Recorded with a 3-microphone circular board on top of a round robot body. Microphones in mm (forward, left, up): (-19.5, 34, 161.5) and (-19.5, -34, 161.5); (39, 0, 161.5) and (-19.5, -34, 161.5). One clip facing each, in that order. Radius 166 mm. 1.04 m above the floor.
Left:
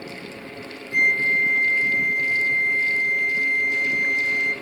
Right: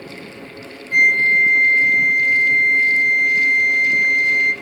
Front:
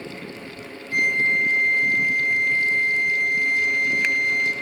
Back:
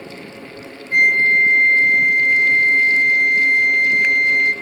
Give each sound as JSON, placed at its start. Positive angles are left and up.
{"t": 0.9, "sound": "a flute", "azimuth_deg": -110, "distance_m": 1.5}